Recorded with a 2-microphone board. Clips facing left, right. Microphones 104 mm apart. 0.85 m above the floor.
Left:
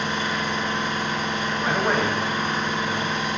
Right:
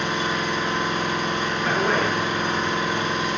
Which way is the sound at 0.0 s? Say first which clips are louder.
Right 1 dB; 60° right (ahead or behind).